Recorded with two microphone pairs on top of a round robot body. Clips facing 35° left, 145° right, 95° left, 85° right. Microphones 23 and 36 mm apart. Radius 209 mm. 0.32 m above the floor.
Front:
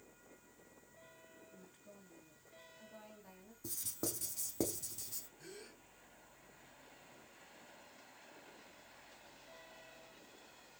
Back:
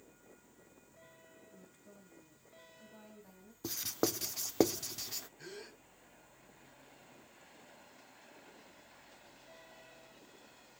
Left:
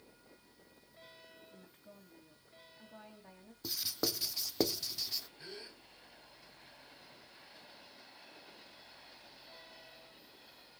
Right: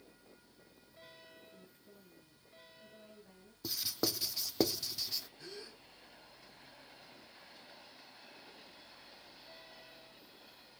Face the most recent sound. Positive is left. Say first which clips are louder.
# back 4 dB, even
turn(degrees=160)